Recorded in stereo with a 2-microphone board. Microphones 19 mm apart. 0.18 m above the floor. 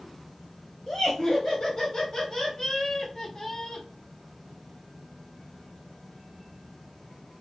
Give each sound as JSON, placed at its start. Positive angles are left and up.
{"t": 0.9, "sound": "laughter", "side_deg": 35, "distance_m": 1.8}